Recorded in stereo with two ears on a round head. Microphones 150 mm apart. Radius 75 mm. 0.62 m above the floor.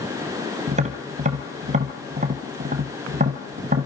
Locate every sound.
0.7 s tapping: 40° right (ahead or behind), 2.0 m